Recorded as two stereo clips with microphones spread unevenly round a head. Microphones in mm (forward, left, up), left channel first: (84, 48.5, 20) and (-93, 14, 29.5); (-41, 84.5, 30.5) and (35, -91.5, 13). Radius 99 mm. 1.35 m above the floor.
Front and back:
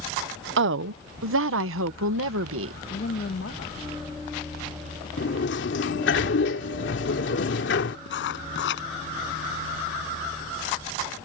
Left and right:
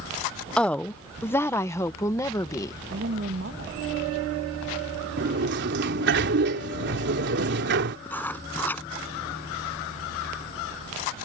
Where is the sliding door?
30° right.